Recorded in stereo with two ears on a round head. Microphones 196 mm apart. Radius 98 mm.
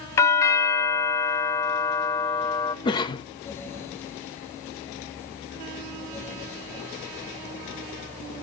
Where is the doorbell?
15° left (ahead or behind), 0.6 m.